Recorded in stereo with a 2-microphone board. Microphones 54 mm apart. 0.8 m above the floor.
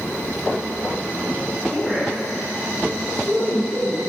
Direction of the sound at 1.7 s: Centre (ahead or behind).